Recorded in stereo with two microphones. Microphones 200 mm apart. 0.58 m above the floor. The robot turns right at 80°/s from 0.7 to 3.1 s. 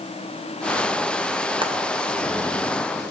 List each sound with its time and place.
1.6 s frying: 25° right (ahead or behind), 2.5 m; by 1.7 s 15° right (ahead or behind), 2.5 m